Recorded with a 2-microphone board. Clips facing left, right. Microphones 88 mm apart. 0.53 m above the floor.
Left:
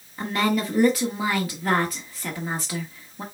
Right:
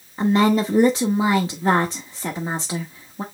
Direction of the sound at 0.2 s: 25° right (ahead or behind).